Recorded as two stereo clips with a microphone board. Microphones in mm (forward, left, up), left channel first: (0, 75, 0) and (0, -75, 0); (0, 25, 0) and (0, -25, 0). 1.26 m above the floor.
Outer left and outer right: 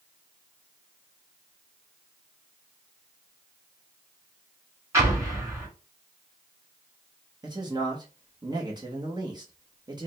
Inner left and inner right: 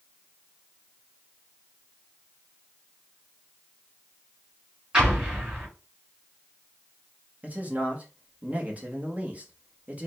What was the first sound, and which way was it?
An explosion, 20° right (ahead or behind).